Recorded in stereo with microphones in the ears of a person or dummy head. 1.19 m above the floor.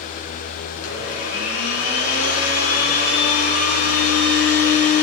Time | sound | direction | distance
0.8 | a blender | 55° left (ahead or behind) | 4.5 m